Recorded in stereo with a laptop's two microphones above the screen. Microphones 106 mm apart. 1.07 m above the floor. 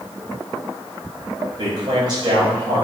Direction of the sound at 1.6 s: 40° right (ahead or behind).